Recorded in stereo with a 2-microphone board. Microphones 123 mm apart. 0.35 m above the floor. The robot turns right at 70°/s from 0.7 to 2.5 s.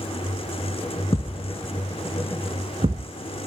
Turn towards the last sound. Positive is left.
turn(degrees=-50)  # may be behind; listen again after turning